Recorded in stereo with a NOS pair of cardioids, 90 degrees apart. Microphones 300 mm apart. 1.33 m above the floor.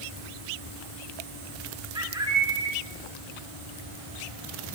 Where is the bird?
15° right, 2 m.